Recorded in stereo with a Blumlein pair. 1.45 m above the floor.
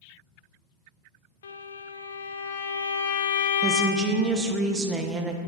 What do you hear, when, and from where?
1.4 s a violin: 65° left, 0.5 m
3.6 s a woman speaking: 20° right, 0.7 m